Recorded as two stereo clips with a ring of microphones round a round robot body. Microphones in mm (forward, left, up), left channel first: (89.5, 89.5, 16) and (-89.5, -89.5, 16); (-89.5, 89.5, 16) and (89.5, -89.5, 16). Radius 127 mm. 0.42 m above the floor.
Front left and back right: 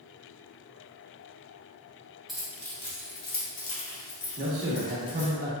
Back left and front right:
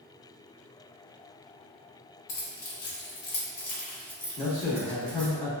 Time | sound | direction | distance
2.3 | keys jangling | 135° left | 1.2 m
4.4 | a man speaking | 170° right | 0.9 m